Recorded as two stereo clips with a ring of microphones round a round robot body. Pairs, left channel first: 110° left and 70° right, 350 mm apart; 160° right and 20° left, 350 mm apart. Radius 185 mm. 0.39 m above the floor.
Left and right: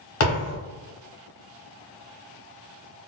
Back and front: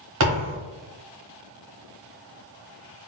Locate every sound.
0.2 s a thud: 65° left, 1.2 m